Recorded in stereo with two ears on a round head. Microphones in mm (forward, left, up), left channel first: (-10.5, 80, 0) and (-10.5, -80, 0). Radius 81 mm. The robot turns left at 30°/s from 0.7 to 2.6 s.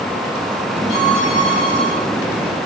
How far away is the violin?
About 5.5 m.